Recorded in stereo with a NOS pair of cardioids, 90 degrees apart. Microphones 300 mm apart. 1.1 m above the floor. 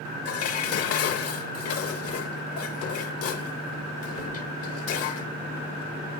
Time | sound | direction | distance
0.2 | dishes clattering | 55° left | 0.8 m